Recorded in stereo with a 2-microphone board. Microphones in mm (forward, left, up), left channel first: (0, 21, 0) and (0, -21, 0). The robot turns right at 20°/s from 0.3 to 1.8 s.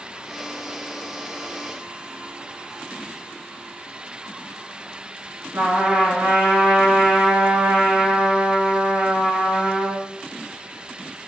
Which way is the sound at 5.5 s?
60° right (ahead or behind).